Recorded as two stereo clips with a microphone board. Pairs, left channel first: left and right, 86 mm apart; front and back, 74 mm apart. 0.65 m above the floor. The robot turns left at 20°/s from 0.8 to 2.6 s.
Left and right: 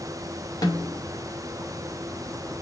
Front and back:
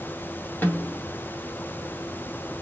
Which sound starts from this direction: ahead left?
A snare drum, at 0.6 s.